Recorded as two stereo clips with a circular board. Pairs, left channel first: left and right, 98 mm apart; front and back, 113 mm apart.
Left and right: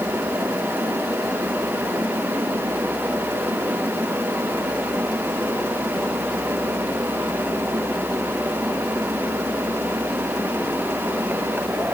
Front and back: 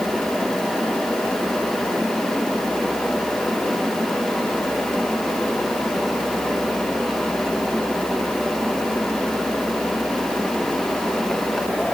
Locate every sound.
Only background noise.